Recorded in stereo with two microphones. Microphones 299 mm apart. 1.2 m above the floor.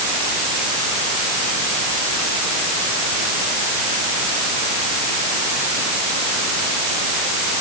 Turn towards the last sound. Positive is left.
No sound to turn to.